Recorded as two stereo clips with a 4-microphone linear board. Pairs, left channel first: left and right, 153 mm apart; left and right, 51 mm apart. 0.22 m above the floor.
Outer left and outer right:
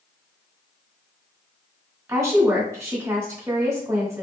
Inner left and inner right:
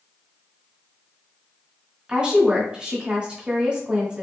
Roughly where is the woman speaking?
Centre.